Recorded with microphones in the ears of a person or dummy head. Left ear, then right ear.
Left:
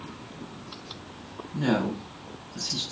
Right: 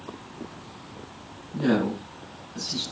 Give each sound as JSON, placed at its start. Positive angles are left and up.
{"t": 1.5, "sound": "a woman speaking", "side_deg": 15, "distance_m": 4.0}